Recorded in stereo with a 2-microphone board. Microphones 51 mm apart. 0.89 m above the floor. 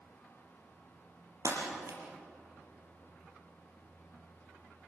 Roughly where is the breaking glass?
Right.